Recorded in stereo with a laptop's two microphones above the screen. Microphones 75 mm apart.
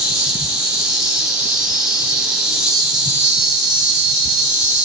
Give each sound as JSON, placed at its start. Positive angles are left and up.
{"t": 0.0, "sound": "an insect", "side_deg": -10, "distance_m": 1.2}